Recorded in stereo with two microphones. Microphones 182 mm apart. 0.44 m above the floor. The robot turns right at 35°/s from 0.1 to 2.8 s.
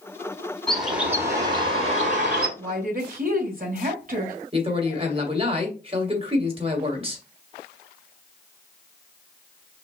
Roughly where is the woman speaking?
Right.